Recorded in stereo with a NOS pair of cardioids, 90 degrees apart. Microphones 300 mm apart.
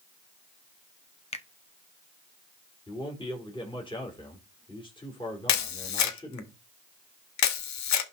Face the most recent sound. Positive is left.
turn(degrees=65)